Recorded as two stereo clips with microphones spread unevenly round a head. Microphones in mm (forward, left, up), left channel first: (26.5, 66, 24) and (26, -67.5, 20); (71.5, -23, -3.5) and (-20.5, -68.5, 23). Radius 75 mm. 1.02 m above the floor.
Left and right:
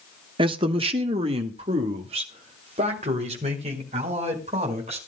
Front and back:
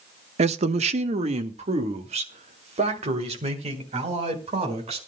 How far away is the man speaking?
About 1.0 m.